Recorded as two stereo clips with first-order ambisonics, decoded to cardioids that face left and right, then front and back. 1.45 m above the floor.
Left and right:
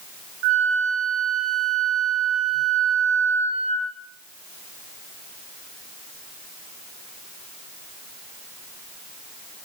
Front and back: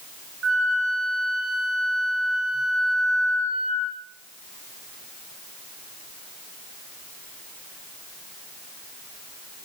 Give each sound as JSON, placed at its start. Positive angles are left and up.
{"t": 0.4, "sound": "a flute", "azimuth_deg": -115, "distance_m": 8.5}